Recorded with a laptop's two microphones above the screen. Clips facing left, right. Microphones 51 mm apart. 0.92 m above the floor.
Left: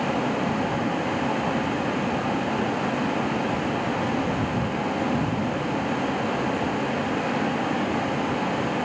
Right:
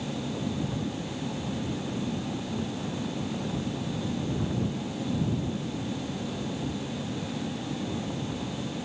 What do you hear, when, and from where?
0.0 s a vehicle: 65° left (ahead or behind)